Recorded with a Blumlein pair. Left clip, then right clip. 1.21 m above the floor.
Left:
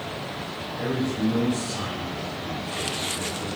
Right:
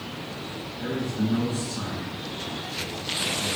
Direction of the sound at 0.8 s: 55° left.